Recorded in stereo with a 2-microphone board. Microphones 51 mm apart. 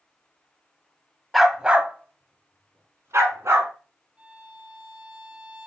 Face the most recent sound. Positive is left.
turn(degrees=-25)  # may be behind; listen again after turning